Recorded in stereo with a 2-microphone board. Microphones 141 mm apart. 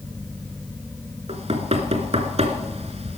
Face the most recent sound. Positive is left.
turn(degrees=-50)  # may be behind; listen again after turning